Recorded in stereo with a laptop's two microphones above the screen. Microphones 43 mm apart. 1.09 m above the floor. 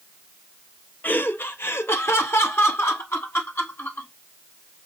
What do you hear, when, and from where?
1.0 s laughter: 45° left (ahead or behind), 0.6 m; by 4.1 s 75° left (ahead or behind), 1.9 m